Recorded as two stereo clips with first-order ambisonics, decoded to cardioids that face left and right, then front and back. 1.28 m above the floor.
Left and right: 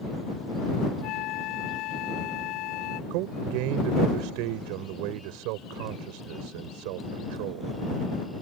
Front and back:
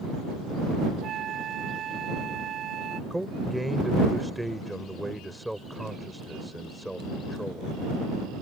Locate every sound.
1.0 s a flute: 125° left
3.1 s a man speaking: 90° right